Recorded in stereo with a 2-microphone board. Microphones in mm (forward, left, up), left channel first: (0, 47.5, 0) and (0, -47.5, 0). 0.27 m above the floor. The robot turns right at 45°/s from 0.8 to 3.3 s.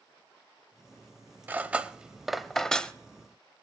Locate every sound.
1.5 s cutlery clinking: 20° right (ahead or behind), 0.5 m; by 2.9 s 10° left (ahead or behind), 0.5 m